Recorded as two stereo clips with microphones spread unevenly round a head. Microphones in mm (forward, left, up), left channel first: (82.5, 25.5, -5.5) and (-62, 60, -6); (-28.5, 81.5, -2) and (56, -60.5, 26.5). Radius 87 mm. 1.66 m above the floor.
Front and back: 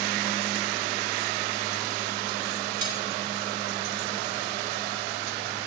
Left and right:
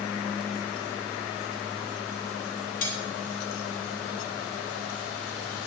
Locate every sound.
2.8 s cutlery clinking: 140° left, 6 m